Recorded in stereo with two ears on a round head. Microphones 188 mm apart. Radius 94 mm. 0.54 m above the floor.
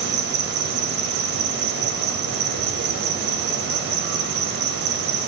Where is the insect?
50° right (ahead or behind), 0.7 m.